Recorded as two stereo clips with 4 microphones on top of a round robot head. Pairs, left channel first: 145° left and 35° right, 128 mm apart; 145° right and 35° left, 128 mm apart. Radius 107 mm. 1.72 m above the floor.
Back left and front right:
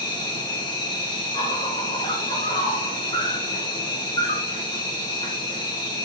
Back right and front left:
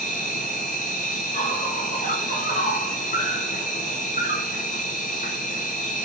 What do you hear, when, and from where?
0.0 s an insect: 160° right, 3 m